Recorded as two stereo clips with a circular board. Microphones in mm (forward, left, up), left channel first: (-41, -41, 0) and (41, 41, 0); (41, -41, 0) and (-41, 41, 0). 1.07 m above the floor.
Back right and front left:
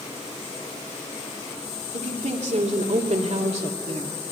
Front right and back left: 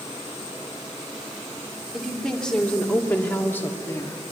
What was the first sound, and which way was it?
A woman speaking, 40° left.